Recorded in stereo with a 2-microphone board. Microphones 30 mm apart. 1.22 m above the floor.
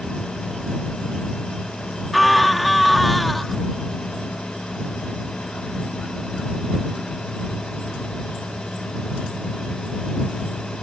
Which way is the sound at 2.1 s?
Centre (ahead or behind).